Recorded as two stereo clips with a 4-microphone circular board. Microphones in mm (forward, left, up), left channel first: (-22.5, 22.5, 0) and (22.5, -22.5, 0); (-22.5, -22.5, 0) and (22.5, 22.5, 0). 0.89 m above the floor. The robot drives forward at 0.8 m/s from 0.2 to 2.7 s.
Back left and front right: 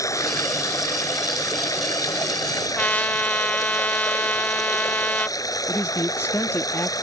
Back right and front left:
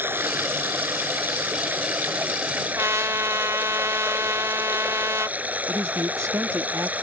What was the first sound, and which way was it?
Running water, 100° left.